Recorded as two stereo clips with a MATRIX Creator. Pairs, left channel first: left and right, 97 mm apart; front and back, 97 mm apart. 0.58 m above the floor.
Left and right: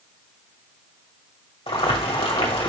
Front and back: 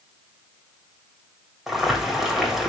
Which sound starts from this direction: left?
Boiling, at 1.7 s.